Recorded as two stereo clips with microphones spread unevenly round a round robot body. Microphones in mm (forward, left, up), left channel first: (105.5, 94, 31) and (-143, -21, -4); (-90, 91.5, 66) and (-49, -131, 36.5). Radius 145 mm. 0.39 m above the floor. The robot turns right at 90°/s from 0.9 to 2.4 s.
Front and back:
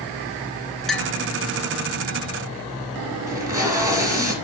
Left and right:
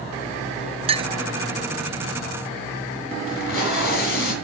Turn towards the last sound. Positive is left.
turn(degrees=125)